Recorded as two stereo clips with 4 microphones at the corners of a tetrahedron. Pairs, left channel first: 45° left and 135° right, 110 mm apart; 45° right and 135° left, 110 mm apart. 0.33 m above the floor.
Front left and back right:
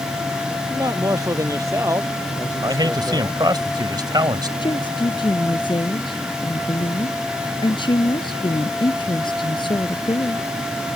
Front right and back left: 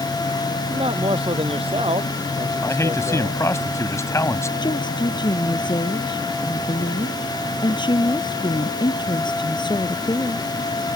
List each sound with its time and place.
0.7 s a man speaking: 165° left; by 3.4 s 160° left
2.6 s a man speaking: 100° right
4.6 s a woman speaking: straight ahead